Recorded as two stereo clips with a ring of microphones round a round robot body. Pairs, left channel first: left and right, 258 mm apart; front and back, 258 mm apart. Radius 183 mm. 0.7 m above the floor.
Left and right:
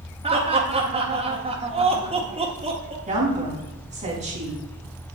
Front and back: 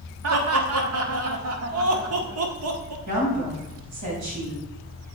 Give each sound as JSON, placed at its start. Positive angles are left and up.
{"t": 0.2, "sound": "laughter", "azimuth_deg": -160, "distance_m": 1.5}
{"t": 3.1, "sound": "a woman speaking", "azimuth_deg": -160, "distance_m": 4.0}